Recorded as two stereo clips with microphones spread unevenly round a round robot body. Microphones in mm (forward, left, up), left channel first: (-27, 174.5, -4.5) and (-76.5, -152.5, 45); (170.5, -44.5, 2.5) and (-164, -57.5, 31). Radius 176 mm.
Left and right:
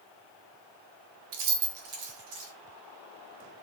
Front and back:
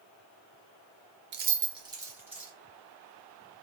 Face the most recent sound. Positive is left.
turn(degrees=-90)